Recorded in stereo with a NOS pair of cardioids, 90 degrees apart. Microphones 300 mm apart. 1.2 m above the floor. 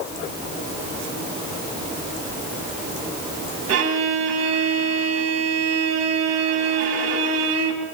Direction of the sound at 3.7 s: 55° right.